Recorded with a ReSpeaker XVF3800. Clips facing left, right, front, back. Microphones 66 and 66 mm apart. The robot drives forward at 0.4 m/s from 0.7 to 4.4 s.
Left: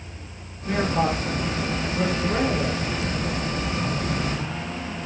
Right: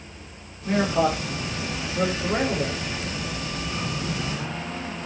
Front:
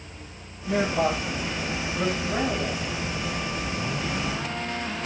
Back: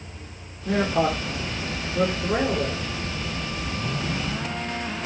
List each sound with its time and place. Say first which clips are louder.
0.7 s a man speaking: right 1 dB, back 1 dB; 175° right, 3.5 m